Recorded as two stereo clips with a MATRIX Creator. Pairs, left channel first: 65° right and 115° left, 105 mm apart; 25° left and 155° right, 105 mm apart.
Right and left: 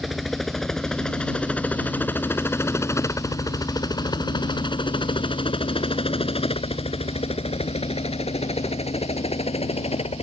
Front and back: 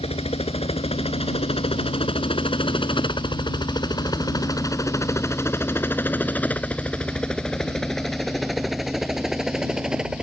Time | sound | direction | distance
0.0 | a helicopter | 25° left | ?